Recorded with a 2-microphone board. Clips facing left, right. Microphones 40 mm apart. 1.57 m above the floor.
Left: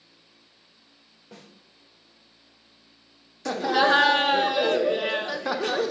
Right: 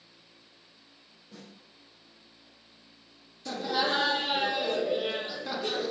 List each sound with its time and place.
1.3 s a snare drum: 80° left, 3 m
3.5 s laughter: 90° left, 1.0 m